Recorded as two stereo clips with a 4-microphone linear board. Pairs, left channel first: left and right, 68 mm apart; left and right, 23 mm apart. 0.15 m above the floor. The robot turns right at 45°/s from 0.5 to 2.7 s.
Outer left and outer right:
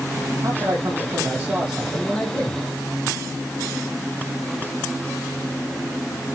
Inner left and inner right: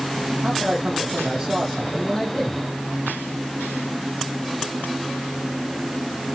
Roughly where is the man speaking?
Ahead right.